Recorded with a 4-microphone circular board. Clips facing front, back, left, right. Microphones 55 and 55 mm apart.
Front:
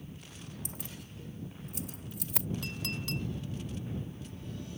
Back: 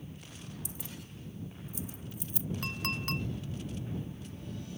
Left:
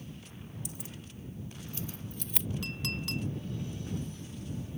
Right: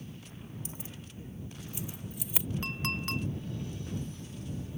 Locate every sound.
0.7 s keys jangling: 35° right; by 2.5 s 10° right
2.6 s a clink: 135° right